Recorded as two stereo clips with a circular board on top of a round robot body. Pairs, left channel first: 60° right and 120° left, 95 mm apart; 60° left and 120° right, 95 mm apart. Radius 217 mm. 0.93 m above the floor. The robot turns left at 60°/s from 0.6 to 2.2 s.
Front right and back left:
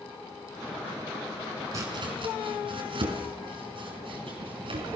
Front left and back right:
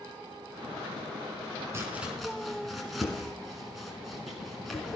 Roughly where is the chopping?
Behind.